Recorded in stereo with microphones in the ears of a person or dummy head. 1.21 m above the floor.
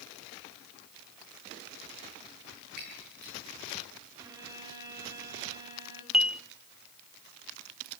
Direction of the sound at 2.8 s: 55° right (ahead or behind).